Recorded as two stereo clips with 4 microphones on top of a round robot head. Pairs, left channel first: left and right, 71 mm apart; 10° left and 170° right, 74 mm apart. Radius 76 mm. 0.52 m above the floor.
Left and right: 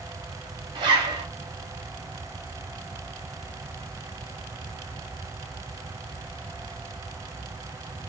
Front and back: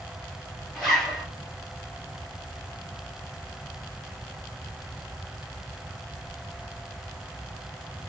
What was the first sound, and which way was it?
A zipper, 85° right.